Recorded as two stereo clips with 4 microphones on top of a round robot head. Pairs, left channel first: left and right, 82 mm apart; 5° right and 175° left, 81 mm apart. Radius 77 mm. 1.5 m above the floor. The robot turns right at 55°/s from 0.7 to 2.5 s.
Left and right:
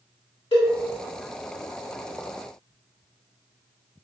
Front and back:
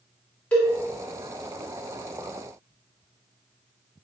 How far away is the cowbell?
About 1.6 m.